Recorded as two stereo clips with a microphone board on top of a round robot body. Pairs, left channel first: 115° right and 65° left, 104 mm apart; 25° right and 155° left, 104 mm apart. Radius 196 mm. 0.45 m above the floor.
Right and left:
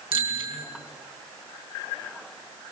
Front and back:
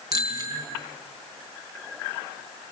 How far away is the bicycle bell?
About 5.5 m.